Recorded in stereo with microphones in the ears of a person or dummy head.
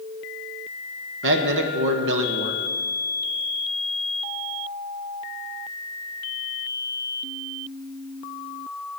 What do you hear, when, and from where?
1.2 s a man speaking: 60° right (ahead or behind), 1.4 m